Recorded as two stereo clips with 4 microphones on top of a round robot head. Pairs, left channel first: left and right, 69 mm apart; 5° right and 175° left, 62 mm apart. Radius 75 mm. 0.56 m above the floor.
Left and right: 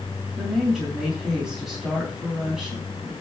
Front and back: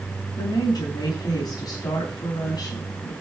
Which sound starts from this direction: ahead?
A woman speaking, at 0.4 s.